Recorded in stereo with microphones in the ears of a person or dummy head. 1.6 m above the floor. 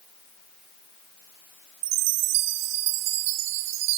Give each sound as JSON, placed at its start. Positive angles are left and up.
{"t": 1.8, "sound": "a chime", "side_deg": -55, "distance_m": 1.2}